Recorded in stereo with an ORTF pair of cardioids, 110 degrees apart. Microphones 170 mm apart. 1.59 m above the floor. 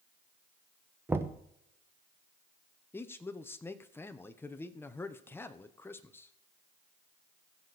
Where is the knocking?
15° right, 1.1 m.